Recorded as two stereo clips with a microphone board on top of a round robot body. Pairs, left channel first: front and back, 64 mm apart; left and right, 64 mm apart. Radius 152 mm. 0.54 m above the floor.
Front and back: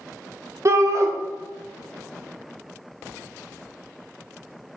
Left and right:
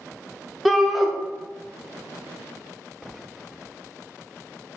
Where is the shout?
175° right, 0.8 m.